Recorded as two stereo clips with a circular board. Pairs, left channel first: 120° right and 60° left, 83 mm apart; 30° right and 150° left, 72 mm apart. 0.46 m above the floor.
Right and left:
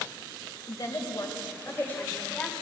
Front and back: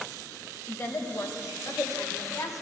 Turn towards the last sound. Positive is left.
turn(degrees=-40)